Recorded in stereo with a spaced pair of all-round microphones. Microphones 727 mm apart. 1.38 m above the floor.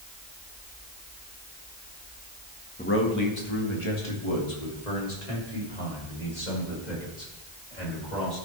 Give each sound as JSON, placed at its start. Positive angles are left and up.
{"t": 2.8, "sound": "a man speaking", "side_deg": 10, "distance_m": 1.9}